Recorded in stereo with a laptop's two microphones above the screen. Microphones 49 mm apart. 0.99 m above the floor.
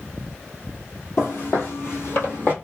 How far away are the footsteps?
About 1.4 m.